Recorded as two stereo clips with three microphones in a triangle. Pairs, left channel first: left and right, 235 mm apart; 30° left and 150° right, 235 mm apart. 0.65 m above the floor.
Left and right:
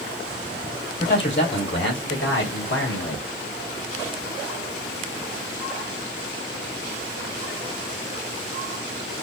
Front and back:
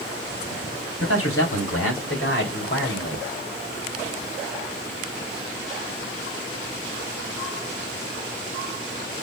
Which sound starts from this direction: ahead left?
A man speaking, at 1.0 s.